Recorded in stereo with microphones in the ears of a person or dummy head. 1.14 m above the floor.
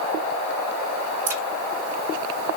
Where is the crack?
10° right (ahead or behind), 0.8 m.